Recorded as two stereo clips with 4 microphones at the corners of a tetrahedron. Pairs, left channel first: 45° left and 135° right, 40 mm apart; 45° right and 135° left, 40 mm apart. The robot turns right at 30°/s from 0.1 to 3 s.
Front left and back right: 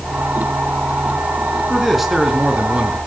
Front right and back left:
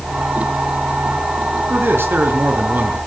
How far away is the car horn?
No car horn in this recording.